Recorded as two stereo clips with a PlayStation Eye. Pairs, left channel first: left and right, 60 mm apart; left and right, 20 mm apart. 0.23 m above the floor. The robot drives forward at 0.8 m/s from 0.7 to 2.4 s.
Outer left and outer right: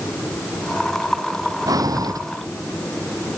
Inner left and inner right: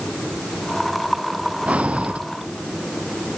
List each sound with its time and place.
1.7 s breathing: 90° right; by 2.2 s 85° right